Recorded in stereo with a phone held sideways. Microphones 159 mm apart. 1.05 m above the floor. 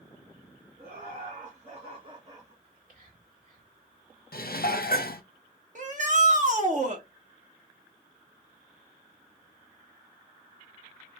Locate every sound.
0.8 s laughter: 65° right (ahead or behind), 1.7 m; by 2.5 s 20° right (ahead or behind), 1.9 m
2.6 s whispering: 65° right (ahead or behind), 1.9 m
4.3 s dishes clattering: 75° left (ahead or behind), 0.5 m
5.8 s a shout: 55° right (ahead or behind), 1.3 m